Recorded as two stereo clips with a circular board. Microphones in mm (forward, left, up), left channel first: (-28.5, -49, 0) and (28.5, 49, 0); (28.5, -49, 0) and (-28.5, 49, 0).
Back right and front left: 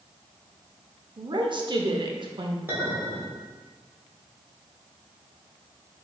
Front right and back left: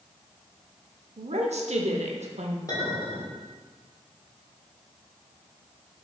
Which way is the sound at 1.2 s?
105° left.